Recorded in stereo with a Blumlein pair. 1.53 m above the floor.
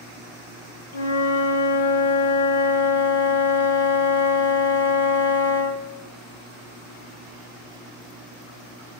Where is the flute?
65° left, 0.7 m.